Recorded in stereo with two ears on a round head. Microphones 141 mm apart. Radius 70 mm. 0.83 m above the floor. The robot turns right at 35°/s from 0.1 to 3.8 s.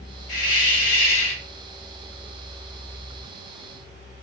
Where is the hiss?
40° left, 1.2 m; by 1.4 s 80° left, 1.2 m.